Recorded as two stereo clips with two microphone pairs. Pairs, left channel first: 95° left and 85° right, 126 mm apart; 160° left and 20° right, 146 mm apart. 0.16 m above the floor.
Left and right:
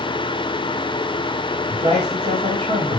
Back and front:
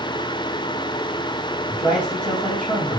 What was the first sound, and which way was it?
A man speaking, 120° right.